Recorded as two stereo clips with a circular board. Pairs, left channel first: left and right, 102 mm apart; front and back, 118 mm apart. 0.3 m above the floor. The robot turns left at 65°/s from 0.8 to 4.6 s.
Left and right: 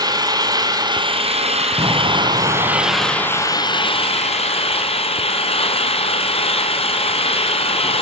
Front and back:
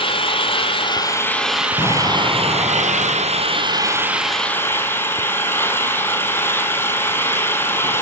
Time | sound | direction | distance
0.0 | an engine running | 40° right | 3 m
1.8 | an explosion | 45° right | 3 m